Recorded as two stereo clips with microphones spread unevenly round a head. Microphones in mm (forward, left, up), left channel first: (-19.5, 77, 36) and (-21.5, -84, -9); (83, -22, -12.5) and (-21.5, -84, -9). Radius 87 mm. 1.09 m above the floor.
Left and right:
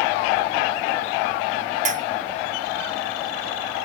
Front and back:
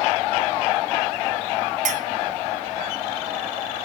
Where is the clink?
135° right, 0.7 m.